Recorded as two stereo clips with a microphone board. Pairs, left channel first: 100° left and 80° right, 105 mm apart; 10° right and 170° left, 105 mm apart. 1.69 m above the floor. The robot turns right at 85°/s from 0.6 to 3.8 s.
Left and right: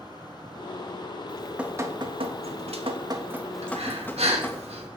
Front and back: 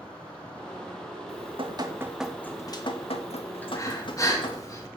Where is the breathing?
85° right, 3 m; by 4.9 s 70° right, 3 m.